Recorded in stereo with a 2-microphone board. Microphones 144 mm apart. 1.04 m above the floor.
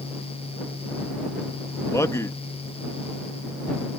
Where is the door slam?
No door slam in this recording.